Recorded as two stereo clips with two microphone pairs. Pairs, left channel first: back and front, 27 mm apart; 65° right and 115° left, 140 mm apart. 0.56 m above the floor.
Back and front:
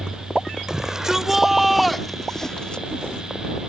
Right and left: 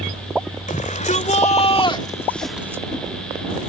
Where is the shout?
75° right; by 2.9 s 165° left.